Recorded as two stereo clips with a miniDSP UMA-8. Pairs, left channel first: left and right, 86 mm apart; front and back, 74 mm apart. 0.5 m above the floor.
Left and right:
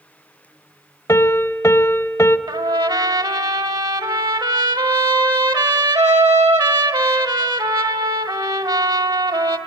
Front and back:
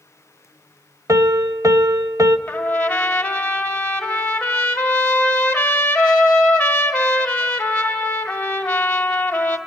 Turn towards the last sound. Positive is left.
turn(degrees=-70)